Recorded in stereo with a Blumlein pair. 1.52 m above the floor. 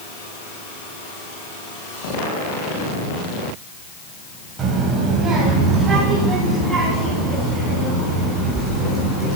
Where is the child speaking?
25° right, 7.5 m; by 9.4 s 15° right, 13.5 m.